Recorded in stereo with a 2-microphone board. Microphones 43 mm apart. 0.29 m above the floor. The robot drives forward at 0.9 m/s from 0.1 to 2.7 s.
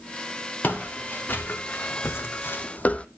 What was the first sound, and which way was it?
Footsteps, 45° left (ahead or behind).